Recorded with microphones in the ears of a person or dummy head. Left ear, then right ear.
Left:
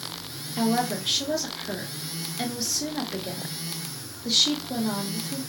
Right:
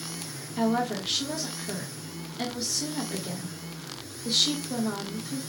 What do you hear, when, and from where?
0.6 s a woman speaking: 20° left (ahead or behind), 1.0 m